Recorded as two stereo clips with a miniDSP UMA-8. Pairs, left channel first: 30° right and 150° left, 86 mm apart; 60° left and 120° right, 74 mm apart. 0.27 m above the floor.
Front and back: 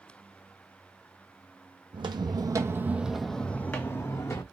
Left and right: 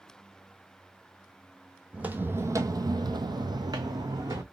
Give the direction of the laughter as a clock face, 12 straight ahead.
No laughter in this recording.